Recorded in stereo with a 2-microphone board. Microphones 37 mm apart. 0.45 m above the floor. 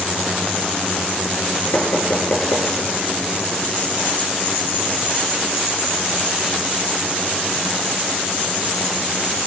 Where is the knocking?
85° left, 6.5 m.